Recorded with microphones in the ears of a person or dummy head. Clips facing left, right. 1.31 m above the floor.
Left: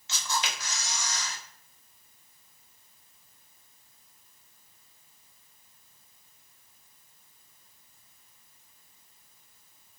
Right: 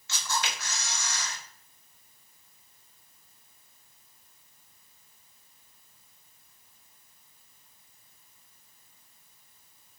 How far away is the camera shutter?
About 2.5 m.